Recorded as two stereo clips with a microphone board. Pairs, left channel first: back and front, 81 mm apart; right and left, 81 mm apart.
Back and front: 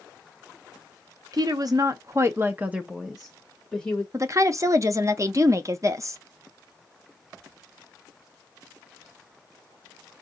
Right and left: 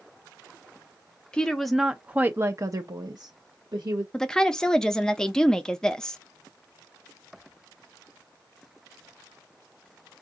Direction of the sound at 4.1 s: 10° right.